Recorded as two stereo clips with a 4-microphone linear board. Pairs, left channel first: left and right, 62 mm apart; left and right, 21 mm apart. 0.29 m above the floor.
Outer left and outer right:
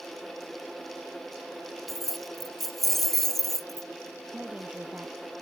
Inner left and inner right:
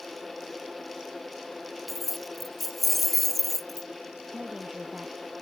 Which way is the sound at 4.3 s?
25° right (ahead or behind).